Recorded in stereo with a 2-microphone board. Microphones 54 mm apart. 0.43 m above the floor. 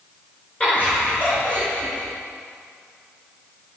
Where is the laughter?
25° left (ahead or behind), 4.5 m.